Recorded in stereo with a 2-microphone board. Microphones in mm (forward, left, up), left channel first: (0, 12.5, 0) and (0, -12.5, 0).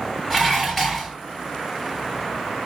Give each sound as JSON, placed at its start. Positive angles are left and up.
{"t": 0.3, "sound": "dishes clattering", "side_deg": 15, "distance_m": 3.5}